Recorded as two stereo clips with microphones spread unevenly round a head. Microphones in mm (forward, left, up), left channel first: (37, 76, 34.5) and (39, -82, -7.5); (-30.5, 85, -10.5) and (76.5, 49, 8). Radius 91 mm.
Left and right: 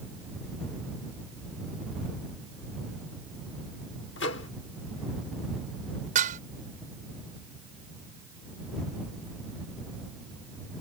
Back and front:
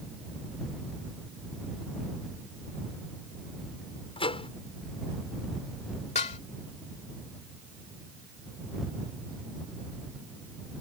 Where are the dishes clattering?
140° right.